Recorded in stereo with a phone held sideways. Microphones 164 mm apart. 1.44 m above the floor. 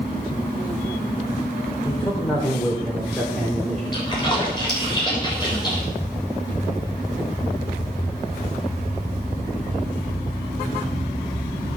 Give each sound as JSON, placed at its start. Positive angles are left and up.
{"t": 1.9, "sound": "a man speaking", "side_deg": 15, "distance_m": 4.5}
{"t": 3.9, "sound": "a splash", "side_deg": 25, "distance_m": 6.5}